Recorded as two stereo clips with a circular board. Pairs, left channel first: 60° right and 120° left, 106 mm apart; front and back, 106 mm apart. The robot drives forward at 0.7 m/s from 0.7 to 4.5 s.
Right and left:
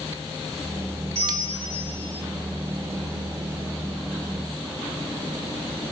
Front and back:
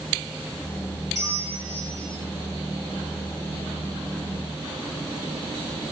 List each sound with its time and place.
1.1 s a bell: 120° left, 7 m; by 2.2 s 125° left, 7.5 m